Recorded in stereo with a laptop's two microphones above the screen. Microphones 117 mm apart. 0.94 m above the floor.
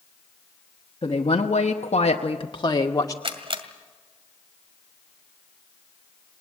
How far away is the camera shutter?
About 2.0 m.